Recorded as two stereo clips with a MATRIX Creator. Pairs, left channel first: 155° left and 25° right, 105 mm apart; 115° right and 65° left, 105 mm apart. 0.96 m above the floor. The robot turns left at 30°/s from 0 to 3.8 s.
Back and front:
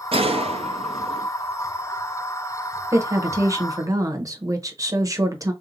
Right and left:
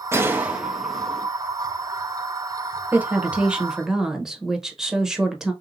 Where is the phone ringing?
I don't hear a phone ringing.